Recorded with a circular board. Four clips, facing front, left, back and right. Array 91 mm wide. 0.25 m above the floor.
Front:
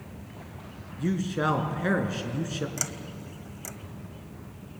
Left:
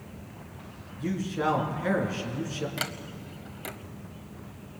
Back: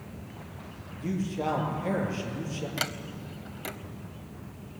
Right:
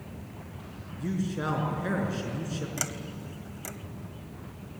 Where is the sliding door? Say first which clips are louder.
Left 1 dB, back 3 dB; 150° left, 0.9 m.